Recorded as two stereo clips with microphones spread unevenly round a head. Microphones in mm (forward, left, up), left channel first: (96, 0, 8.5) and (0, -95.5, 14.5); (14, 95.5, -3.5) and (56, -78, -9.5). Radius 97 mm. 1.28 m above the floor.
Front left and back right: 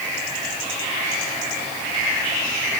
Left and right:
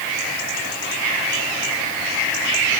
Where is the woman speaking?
No woman speaking in this recording.